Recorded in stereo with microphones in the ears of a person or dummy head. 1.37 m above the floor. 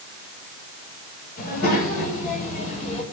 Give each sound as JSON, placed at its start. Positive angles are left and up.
{"t": 1.4, "sound": "a child speaking", "side_deg": 55, "distance_m": 5.5}